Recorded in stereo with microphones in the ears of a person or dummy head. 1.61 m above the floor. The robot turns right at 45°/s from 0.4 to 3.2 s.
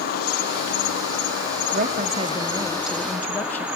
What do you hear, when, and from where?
0.0 s an insect: 60° left, 3 m; by 3.8 s 175° right, 3 m
1.7 s a woman speaking: 55° right, 1.2 m; by 3.6 s 10° left, 1.2 m